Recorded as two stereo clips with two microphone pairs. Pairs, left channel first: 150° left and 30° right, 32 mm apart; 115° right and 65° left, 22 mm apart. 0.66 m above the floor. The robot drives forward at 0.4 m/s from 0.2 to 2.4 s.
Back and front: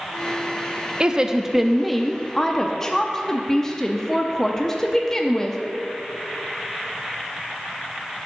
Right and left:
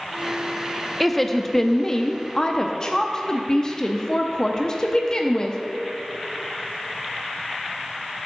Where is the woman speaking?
30° right, 0.6 m; by 5.6 s 150° right, 0.6 m.